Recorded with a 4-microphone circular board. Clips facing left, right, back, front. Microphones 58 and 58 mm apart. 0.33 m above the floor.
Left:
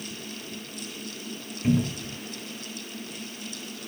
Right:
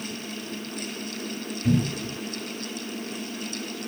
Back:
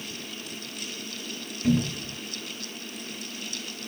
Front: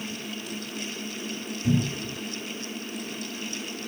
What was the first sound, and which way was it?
A cupboard door, 140° left.